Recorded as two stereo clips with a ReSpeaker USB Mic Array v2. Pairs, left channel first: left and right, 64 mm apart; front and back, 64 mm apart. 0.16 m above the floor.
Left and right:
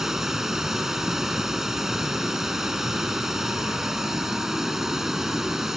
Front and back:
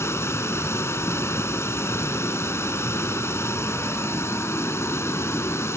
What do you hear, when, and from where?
0.0 s running water: 10° right, 1.3 m